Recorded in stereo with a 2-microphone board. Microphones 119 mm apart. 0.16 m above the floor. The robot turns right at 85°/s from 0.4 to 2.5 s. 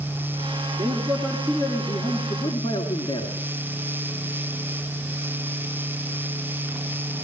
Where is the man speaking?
40° right, 2 m; by 3.3 s 105° left, 2 m.